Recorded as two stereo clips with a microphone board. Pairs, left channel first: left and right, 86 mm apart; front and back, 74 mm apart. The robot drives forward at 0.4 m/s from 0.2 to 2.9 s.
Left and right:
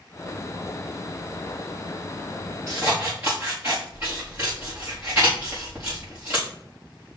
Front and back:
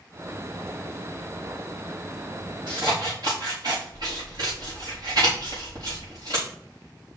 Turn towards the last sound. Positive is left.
turn(degrees=-150)